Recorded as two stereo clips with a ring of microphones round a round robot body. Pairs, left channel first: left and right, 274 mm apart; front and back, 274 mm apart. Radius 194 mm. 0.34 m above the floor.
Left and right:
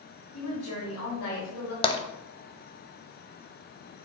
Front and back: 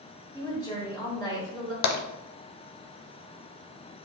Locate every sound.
0.3 s a woman speaking: 75° left, 2 m
1.8 s tapping: 15° left, 0.7 m